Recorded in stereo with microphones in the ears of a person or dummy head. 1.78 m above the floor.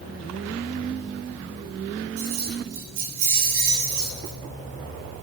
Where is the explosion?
No explosion in this recording.